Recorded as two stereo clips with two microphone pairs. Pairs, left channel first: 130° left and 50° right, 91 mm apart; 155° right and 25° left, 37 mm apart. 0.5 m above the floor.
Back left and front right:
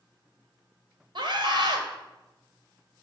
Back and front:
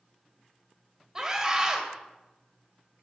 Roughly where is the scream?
Ahead right.